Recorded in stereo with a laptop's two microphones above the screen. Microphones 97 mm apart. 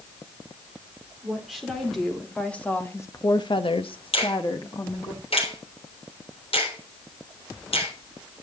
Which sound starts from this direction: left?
A finger snap, at 4.1 s.